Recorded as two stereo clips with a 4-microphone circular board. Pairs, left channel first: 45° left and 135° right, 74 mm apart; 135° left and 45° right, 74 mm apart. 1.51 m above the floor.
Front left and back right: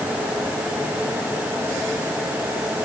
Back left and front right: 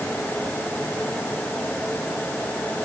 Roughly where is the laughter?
I don't hear laughter.